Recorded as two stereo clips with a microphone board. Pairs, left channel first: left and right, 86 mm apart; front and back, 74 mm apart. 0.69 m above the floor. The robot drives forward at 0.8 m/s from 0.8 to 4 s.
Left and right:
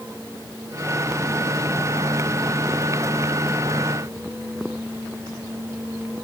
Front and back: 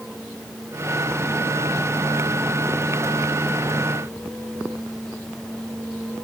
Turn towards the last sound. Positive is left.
No sound to turn to.